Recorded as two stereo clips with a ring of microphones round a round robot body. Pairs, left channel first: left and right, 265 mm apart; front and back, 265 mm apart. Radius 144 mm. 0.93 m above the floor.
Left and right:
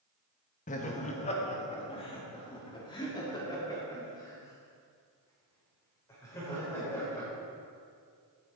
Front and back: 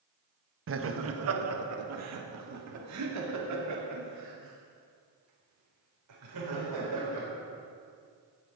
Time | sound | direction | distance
0.7 | laughter | 150° left | 1.2 m